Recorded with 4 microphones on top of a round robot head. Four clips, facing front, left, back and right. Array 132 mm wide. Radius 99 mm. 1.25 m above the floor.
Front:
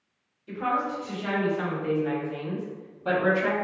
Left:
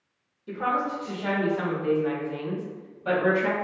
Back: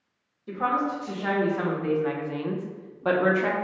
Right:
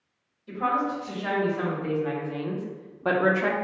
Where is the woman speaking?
145° left, 1.4 m; by 3.6 s 105° right, 0.6 m.